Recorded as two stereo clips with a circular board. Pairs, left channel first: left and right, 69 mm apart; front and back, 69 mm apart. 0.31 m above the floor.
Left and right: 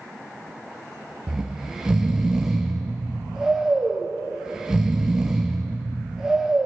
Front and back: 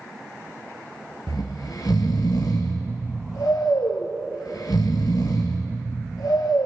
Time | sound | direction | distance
1.3 | snoring | 10° right | 1.1 m